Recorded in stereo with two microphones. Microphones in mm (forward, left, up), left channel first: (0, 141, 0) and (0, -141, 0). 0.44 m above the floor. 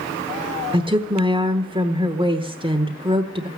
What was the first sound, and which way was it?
A woman speaking, 20° right (ahead or behind).